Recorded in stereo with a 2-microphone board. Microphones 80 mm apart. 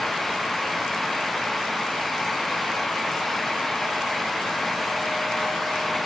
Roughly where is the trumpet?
I don't hear a trumpet.